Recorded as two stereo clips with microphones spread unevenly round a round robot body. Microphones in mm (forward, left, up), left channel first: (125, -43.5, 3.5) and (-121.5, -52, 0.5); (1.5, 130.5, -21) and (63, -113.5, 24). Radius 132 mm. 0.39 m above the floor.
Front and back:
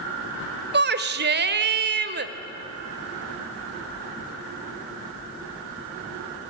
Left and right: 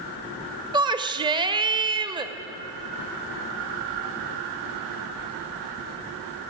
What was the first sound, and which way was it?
A shout, 155° right.